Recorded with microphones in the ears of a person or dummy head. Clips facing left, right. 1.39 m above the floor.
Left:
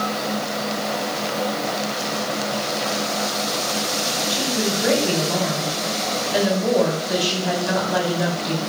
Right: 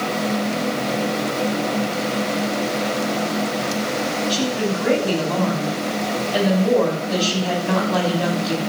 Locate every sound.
4.3 s a woman speaking: 25° left (ahead or behind), 6.5 m